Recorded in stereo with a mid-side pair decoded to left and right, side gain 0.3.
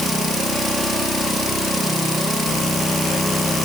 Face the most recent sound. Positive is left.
No sound to turn to.